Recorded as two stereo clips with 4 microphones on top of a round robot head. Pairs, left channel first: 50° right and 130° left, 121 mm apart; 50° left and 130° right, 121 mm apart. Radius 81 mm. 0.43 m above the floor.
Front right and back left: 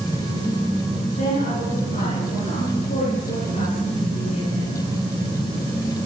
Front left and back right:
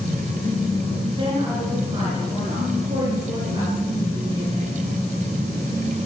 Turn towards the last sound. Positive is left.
turn(degrees=-75)